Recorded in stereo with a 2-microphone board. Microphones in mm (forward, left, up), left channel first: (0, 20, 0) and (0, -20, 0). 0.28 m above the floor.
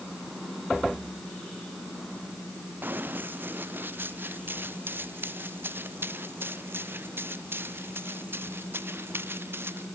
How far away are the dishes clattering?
I don't hear dishes clattering.